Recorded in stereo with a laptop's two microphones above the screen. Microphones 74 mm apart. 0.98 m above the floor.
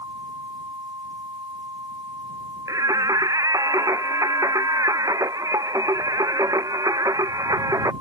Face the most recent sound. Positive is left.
turn(degrees=-50)  # may be behind; listen again after turning